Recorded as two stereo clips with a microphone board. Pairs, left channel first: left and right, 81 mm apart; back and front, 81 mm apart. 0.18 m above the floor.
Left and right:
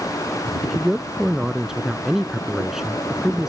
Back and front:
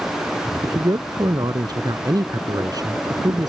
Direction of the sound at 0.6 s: 5° right.